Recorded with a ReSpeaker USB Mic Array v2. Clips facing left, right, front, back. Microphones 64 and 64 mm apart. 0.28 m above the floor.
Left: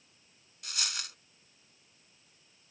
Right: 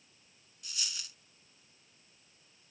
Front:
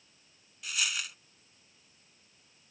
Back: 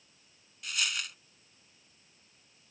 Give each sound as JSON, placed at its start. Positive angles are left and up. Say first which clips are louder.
{"t": 0.6, "sound": "a dropped coin", "louder": "left 6 dB, even", "azimuth_deg": 85}